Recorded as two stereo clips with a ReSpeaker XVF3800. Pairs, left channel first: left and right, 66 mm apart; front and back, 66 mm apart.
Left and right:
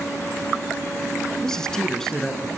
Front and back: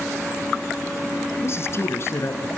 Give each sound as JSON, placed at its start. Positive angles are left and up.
{"t": 1.4, "sound": "a man speaking", "azimuth_deg": 10, "distance_m": 1.9}